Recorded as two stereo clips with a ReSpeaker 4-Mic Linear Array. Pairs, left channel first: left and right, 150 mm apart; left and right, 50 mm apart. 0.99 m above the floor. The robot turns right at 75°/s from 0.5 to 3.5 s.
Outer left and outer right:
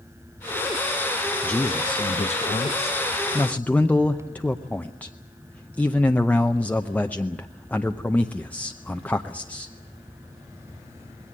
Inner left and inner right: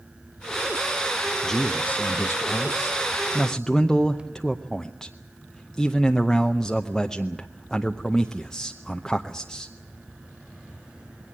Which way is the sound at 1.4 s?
10° left.